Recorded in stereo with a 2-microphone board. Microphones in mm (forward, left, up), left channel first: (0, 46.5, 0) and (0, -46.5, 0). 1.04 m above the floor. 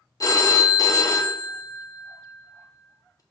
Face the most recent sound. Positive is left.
turn(degrees=40)  # may be behind; listen again after turning